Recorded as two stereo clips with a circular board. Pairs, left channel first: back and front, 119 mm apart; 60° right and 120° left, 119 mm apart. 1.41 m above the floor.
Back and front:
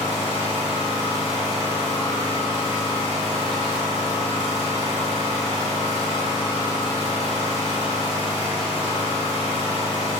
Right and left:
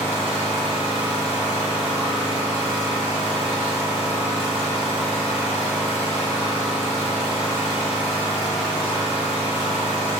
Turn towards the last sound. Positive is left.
turn(degrees=-155)